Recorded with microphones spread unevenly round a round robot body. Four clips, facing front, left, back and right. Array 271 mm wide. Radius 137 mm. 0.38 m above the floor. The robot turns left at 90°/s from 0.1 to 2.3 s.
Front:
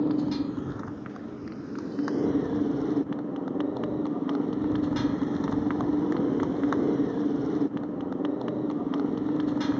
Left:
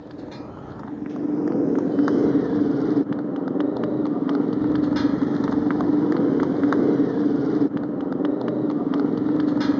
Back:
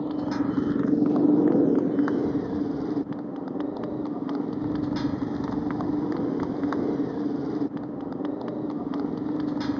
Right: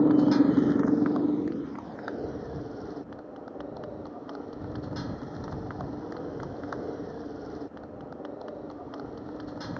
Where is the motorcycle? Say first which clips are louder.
Right 16 dB, even; 80° right; by 9.8 s 80° left.